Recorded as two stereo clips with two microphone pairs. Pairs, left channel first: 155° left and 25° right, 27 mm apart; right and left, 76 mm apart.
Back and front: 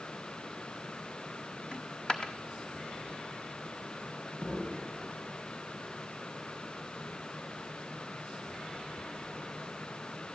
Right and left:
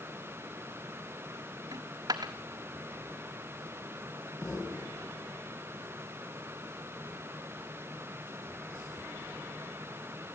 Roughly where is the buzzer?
No buzzer in this recording.